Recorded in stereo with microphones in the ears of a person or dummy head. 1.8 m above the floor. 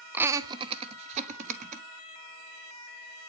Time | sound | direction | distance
0.1 | laughter | 10° right (ahead or behind) | 0.7 m